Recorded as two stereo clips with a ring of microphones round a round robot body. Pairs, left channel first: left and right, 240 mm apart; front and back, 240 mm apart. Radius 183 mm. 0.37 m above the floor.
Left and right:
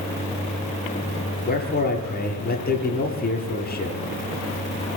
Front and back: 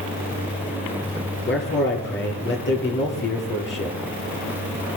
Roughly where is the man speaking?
Ahead left.